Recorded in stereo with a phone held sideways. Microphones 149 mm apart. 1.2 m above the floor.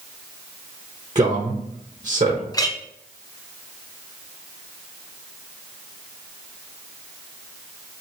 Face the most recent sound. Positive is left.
turn(degrees=25)  # may be behind; listen again after turning